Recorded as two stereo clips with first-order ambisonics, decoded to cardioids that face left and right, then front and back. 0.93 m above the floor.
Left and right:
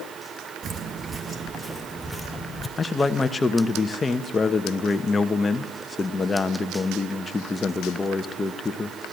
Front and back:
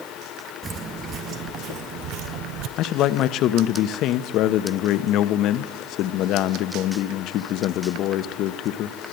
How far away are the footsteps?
About 1.0 m.